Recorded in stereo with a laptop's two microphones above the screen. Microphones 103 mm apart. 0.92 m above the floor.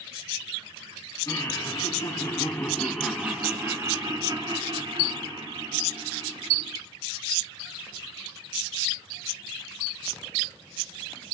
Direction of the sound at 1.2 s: 40° left (ahead or behind).